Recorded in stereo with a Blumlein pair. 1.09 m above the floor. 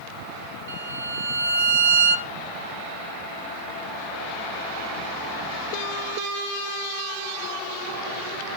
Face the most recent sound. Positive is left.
turn(degrees=-65)